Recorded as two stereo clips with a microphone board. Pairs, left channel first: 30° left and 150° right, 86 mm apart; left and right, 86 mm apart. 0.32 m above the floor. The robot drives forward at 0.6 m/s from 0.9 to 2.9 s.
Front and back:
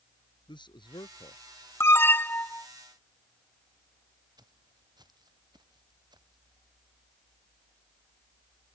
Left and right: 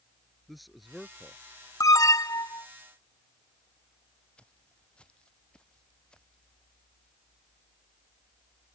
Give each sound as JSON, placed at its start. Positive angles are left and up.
{"t": 0.5, "sound": "a man speaking", "azimuth_deg": 0}
{"t": 1.8, "sound": "an alarm", "azimuth_deg": 75}
{"t": 4.4, "sound": "footsteps", "azimuth_deg": 170}